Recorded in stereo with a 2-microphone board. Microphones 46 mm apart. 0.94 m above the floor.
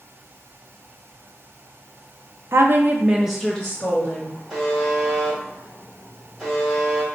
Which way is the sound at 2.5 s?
60° right (ahead or behind).